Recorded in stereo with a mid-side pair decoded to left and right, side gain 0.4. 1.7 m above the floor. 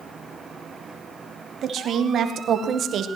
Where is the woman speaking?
70° right, 2.5 m.